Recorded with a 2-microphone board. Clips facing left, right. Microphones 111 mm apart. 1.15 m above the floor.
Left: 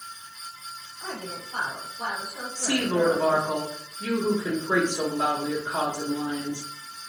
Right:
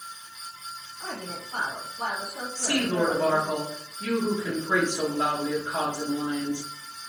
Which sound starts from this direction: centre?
A woman speaking, at 2.5 s.